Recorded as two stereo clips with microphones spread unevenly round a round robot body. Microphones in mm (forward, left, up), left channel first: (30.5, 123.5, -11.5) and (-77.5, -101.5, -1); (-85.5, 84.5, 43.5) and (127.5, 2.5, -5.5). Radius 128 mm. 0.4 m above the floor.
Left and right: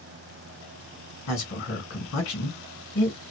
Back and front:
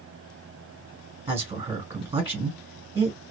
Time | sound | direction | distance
1.3 | a man speaking | 40° left | 1.8 m